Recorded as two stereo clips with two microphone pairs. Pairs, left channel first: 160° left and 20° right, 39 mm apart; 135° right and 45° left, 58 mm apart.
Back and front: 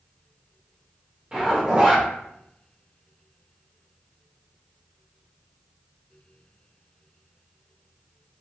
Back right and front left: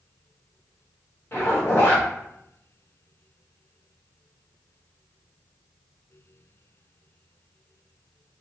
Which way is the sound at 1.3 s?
85° right.